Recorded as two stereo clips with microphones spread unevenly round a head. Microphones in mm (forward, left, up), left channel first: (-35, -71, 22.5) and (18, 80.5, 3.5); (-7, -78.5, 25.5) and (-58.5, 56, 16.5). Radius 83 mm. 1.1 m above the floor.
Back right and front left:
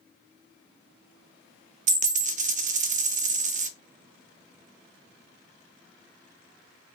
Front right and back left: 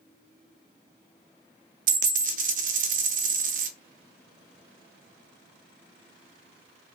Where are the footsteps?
No footsteps in this recording.